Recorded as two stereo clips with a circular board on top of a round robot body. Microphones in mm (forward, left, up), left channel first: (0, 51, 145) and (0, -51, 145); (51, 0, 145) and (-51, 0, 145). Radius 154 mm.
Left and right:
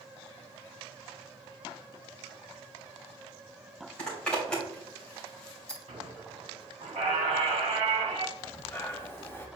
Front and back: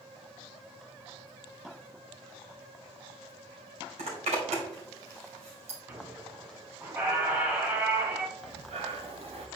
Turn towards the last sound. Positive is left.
turn(degrees=160)